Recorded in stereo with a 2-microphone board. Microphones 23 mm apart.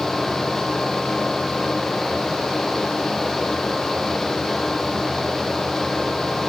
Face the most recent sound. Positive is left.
No sound to turn to.